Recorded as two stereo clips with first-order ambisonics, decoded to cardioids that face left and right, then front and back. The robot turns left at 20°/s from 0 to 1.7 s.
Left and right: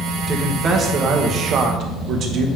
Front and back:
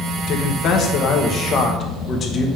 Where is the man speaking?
25° right, 1.1 m; by 2.5 s 55° right, 1.1 m.